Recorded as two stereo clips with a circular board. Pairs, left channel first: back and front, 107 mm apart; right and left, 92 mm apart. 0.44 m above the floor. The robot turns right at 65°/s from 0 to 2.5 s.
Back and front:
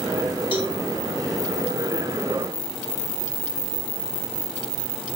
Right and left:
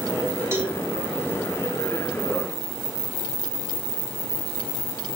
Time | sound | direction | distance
0.5 | a cowbell | 150° left | 2.5 m